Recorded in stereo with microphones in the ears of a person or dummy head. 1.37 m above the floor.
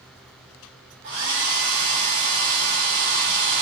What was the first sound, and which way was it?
A hair dryer, 60° right (ahead or behind).